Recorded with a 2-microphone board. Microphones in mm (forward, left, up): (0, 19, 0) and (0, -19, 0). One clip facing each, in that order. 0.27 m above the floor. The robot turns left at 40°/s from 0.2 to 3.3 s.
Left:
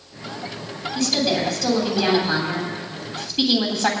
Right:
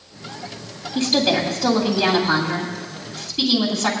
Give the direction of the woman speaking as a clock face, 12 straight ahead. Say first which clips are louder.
Right 3 dB; 4 o'clock.